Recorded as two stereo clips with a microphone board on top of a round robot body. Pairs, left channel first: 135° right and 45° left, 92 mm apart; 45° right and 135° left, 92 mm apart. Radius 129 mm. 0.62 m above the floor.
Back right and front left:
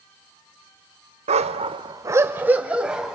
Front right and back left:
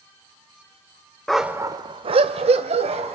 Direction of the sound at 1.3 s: 40° left.